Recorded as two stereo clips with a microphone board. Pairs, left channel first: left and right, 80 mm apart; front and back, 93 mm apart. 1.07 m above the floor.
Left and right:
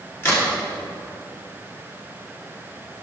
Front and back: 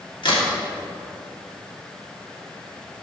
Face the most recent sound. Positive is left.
turn(degrees=30)